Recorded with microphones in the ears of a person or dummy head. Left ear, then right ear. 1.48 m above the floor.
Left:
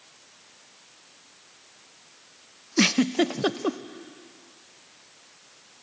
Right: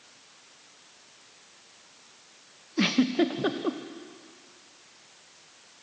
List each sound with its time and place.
2.8 s a giggle: 85° left, 0.7 m